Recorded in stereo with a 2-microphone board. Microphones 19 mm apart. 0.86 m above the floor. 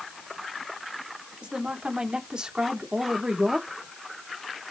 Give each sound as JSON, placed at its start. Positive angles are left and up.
{"t": 1.4, "sound": "a woman speaking", "side_deg": -75, "distance_m": 3.0}